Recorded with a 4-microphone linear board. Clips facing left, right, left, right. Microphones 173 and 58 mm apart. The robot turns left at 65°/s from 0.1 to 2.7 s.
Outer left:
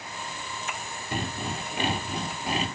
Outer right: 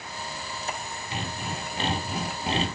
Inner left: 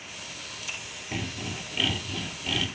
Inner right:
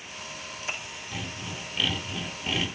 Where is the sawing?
65° left, 1.7 m; by 2.7 s 40° right, 1.7 m.